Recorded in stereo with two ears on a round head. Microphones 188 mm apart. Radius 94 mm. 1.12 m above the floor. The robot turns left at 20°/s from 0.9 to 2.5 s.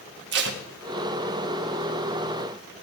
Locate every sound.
0.3 s tape being pulled: 55° right (ahead or behind), 1.3 m